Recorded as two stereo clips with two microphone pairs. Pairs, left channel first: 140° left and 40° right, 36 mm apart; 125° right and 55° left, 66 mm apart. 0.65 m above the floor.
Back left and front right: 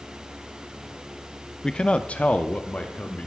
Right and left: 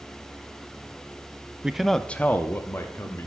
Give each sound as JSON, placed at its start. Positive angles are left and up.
{"t": 1.6, "sound": "a man speaking", "azimuth_deg": 105, "distance_m": 0.5}